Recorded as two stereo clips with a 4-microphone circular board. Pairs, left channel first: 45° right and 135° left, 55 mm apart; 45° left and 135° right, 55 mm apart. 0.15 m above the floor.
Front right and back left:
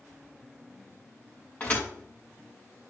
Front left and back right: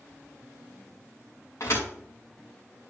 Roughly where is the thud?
Ahead.